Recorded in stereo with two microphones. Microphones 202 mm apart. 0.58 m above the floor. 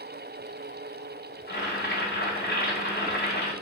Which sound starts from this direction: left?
Boiling, at 1.5 s.